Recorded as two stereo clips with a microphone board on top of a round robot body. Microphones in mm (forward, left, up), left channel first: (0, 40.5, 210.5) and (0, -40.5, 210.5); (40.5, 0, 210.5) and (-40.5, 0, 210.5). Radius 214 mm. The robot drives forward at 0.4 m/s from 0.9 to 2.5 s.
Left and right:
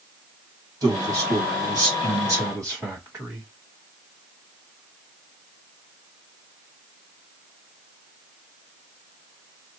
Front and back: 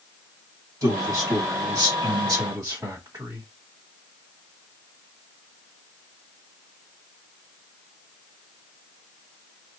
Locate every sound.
0.8 s a man speaking: 130° right, 2 m; by 3.5 s 140° right, 2.5 m